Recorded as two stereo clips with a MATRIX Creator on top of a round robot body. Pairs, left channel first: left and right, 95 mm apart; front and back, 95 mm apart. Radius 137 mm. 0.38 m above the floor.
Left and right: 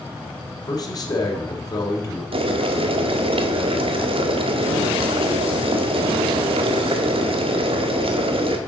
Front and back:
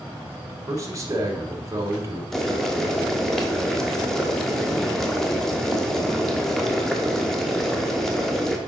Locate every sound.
0.7 s a man speaking: 130° left, 2.0 m
2.3 s boiling: 85° right, 1.1 m